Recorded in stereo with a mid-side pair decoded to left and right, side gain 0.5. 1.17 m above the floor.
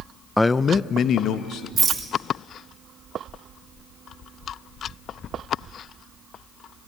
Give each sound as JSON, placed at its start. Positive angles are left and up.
{"t": 0.4, "sound": "a man speaking", "azimuth_deg": 5, "distance_m": 0.5}
{"t": 1.8, "sound": "a rattle", "azimuth_deg": -35, "distance_m": 3.0}